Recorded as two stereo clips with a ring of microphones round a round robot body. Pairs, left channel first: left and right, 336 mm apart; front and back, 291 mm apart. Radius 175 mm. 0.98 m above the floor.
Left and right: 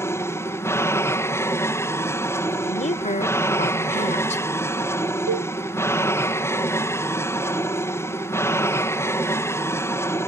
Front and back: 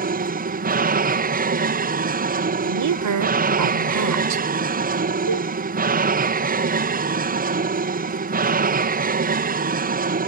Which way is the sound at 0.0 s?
165° left.